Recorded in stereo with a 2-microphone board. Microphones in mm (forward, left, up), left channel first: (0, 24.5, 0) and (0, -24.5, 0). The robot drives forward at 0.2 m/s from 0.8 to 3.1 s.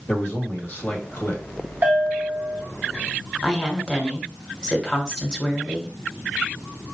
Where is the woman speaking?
20° left (ahead or behind), 1.3 m.